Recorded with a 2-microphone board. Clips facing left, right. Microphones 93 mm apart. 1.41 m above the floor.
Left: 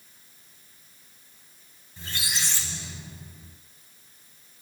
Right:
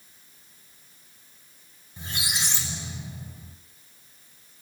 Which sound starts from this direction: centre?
A squeak, at 2.0 s.